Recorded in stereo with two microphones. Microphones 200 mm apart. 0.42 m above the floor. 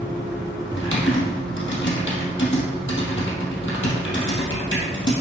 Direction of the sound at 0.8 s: 75° left (ahead or behind).